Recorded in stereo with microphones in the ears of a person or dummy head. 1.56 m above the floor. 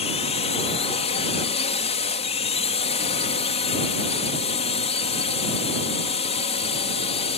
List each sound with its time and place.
0.0 s a drone: 35° left (ahead or behind)